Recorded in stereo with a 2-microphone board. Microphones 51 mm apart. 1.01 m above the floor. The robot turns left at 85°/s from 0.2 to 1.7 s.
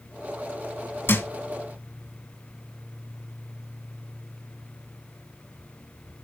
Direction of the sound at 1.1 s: 45° left (ahead or behind).